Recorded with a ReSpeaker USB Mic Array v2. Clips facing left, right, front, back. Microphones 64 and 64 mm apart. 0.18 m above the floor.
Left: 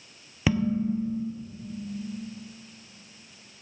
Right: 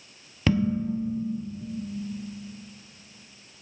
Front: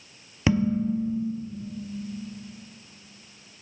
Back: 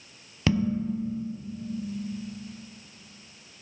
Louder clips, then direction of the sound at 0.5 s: Right 1 dB, front 3 dB; 25° left.